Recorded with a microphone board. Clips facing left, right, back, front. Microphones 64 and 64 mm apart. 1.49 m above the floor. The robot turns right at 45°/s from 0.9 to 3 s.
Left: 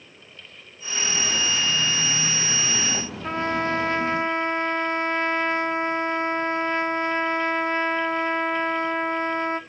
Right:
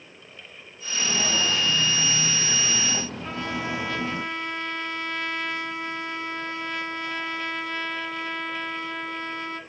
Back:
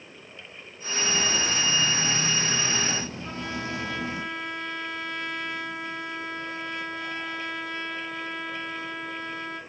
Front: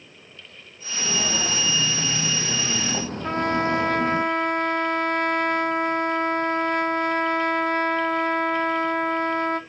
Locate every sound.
0.9 s footsteps: 50° right, 3 m; by 4.2 s 30° right, 2.5 m
3.2 s a trumpet: 30° left, 0.8 m